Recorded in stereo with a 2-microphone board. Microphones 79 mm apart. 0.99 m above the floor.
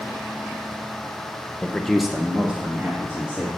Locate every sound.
1.6 s a man speaking: 10° left (ahead or behind), 0.8 m; by 3.5 s 25° right (ahead or behind), 1.9 m